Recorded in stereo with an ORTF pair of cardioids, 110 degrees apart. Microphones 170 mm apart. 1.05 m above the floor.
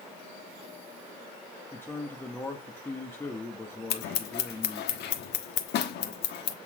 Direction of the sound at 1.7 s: 10° left.